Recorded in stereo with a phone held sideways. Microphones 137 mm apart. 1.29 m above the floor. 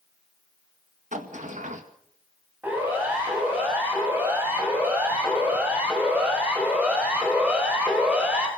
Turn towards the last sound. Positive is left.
turn(degrees=-5)  # may be behind; listen again after turning